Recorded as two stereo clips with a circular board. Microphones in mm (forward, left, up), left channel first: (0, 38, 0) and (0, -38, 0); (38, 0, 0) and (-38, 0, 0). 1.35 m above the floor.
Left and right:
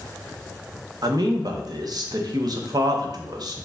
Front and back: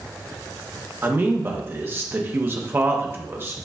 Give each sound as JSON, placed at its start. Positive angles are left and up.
{"t": 1.0, "sound": "a man speaking", "azimuth_deg": -120, "distance_m": 0.7}